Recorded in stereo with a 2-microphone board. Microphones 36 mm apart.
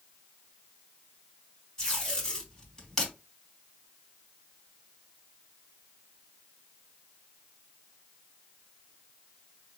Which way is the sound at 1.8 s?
20° left (ahead or behind).